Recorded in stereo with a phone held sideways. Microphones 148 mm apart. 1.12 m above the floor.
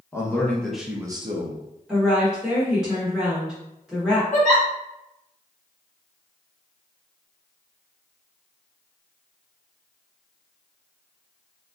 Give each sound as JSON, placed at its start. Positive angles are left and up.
{"t": 0.1, "sound": "a man speaking", "side_deg": 20, "distance_m": 1.0}
{"t": 1.9, "sound": "a woman speaking", "side_deg": -5, "distance_m": 0.9}
{"t": 4.3, "sound": "a giggle", "side_deg": 60, "distance_m": 1.3}